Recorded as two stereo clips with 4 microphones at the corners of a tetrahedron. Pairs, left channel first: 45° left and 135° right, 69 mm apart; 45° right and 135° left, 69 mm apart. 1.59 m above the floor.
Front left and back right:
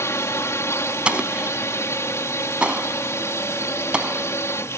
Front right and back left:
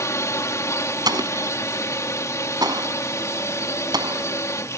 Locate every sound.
0.0 s a drone: 5° right
1.1 s an explosion: 150° left